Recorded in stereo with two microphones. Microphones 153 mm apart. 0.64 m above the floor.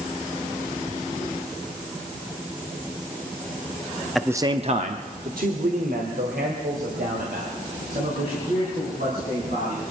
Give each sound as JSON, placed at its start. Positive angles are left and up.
{"t": 4.2, "sound": "a man speaking", "side_deg": 0, "distance_m": 0.5}